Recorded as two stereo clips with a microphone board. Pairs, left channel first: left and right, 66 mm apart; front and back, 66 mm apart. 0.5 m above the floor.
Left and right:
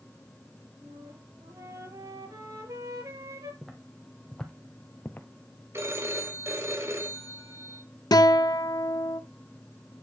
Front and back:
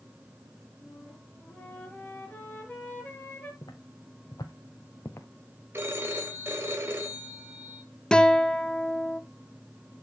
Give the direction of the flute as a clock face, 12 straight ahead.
2 o'clock.